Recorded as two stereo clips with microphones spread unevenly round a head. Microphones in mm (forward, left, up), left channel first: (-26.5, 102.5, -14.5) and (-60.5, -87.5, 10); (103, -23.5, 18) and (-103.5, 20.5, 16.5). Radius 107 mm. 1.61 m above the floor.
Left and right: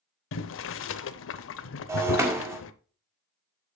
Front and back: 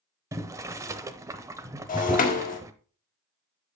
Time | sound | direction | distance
0.3 | boiling | 90° left | 0.7 m
1.9 | breaking glass | 40° right | 1.4 m